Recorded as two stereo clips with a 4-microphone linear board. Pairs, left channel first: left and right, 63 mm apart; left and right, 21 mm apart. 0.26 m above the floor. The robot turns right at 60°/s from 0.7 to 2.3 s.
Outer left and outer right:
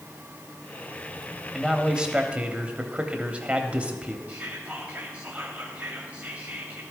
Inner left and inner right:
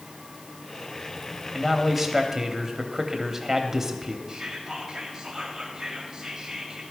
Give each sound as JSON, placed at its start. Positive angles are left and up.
{"t": 1.5, "sound": "a man speaking", "side_deg": -5, "distance_m": 0.9}
{"t": 4.3, "sound": "whispering", "side_deg": -20, "distance_m": 1.7}